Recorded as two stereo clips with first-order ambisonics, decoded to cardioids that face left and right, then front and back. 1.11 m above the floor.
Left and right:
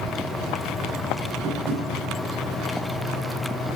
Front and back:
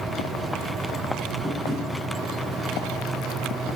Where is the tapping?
100° right, 1.9 m.